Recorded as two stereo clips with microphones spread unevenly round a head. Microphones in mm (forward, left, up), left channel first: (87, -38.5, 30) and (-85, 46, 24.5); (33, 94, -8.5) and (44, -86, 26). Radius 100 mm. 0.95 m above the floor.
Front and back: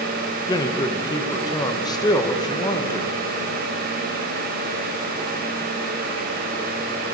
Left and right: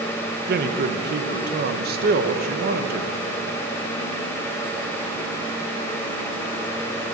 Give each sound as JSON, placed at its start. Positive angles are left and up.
{"t": 0.5, "sound": "a man speaking", "azimuth_deg": -90, "distance_m": 0.7}